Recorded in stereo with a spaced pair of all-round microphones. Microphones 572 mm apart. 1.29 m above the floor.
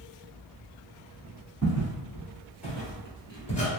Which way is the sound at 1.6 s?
15° right (ahead or behind).